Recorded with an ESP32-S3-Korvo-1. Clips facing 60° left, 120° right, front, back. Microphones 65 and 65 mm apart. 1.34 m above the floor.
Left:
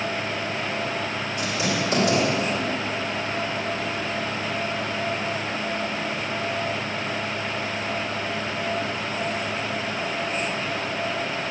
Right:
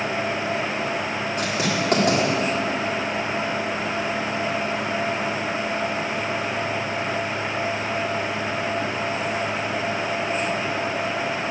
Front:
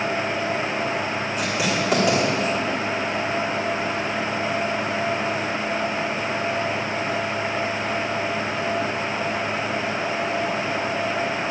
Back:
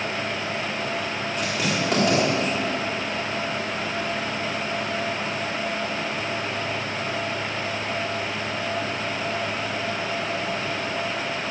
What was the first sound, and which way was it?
Writing, 85° right.